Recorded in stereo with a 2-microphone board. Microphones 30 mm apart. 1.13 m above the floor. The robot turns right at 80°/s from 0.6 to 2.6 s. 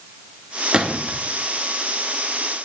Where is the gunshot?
40° right (ahead or behind), 0.8 m; by 1.2 s 25° right (ahead or behind), 0.8 m.